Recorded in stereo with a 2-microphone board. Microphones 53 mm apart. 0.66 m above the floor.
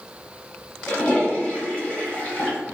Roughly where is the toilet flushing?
Left.